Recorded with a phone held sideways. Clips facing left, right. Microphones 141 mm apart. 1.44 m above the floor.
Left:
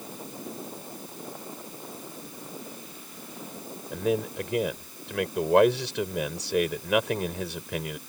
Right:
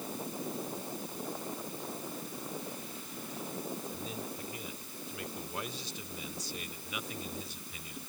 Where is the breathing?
No breathing in this recording.